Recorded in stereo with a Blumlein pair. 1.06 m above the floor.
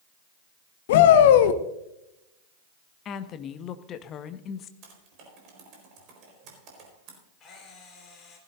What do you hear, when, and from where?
0.9 s a shout: 55° left, 1.1 m
3.0 s a woman speaking: 30° left, 1.1 m
4.8 s typing on a keyboard: 40° right, 4.5 m
7.4 s a camera shutter: 25° left, 4 m